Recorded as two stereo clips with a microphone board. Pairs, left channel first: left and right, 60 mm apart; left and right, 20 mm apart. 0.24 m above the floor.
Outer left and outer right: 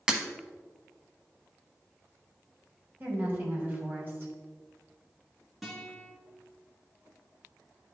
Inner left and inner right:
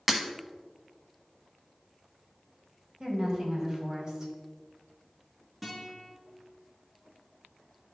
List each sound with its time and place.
0.1 s breaking glass: 15° right (ahead or behind), 0.8 m
3.0 s a woman speaking: 35° right (ahead or behind), 1.7 m
5.6 s a guitar: 5° right (ahead or behind), 2 m